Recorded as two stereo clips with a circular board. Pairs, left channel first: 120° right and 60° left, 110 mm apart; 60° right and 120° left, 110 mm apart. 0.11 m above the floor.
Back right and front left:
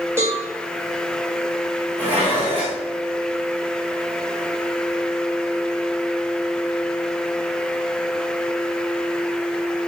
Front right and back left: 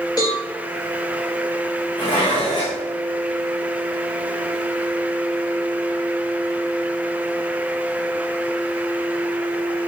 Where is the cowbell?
5° right, 5.5 m.